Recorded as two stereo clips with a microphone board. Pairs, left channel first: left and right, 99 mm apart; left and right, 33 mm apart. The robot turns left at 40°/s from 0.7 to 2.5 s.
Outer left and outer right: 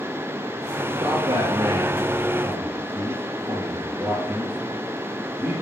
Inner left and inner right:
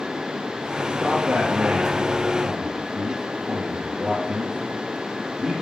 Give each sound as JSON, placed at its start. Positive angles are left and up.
{"t": 0.9, "sound": "a man speaking", "side_deg": -70, "distance_m": 3.5}